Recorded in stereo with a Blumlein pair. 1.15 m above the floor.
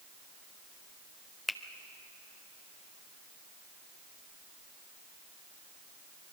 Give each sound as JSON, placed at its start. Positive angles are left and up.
{"t": 1.5, "sound": "a finger snap", "azimuth_deg": 5, "distance_m": 0.9}